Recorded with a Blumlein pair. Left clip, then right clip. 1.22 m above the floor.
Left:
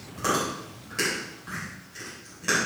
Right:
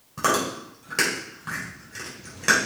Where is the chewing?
25° right, 4 m.